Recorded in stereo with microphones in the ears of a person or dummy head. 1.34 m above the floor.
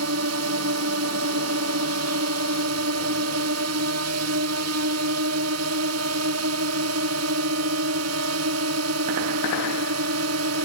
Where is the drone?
80° right.